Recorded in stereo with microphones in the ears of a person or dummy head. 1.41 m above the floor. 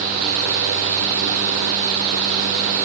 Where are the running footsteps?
I don't hear running footsteps.